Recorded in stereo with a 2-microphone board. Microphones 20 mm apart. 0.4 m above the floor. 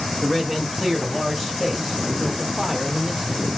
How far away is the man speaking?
About 1.6 m.